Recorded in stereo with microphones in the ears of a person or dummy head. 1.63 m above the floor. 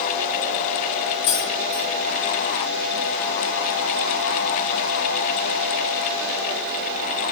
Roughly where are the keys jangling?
Left.